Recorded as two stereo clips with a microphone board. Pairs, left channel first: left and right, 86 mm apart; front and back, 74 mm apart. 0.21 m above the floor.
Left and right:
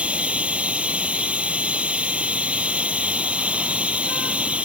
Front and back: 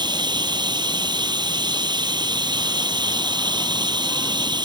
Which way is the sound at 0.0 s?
165° right.